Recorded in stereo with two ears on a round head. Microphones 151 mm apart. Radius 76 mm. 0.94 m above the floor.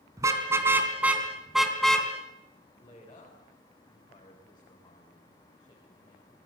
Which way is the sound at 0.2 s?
20° right (ahead or behind).